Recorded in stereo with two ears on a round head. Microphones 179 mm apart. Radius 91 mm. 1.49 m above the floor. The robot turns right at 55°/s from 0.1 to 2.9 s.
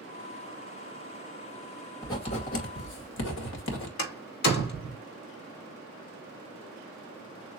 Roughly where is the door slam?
Left.